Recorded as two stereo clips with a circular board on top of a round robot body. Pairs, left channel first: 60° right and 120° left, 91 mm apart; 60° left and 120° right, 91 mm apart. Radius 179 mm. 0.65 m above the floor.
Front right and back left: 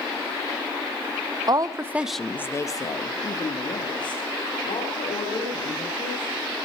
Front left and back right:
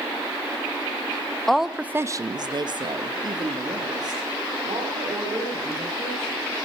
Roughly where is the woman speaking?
Behind left.